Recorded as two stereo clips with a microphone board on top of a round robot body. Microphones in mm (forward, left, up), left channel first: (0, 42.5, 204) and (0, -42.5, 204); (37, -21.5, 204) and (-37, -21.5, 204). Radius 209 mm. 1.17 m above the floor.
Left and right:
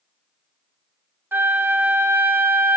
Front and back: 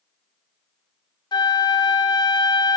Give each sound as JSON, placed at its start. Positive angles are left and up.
{"t": 1.3, "sound": "a flute", "azimuth_deg": -25, "distance_m": 0.8}